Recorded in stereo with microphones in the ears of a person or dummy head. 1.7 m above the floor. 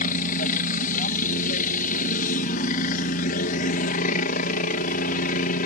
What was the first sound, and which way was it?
A helicopter, 45° left (ahead or behind).